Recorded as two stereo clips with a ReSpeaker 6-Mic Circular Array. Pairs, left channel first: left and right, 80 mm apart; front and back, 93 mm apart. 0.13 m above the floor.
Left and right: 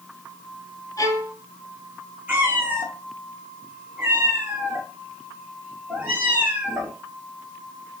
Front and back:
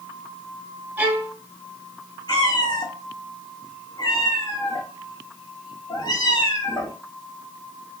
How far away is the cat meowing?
About 1.3 m.